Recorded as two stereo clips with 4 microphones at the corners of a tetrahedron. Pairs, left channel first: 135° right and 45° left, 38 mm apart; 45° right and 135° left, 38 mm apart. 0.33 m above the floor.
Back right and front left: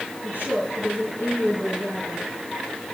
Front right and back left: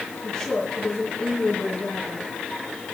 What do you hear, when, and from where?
0.2 s a woman speaking: 10° left, 3 m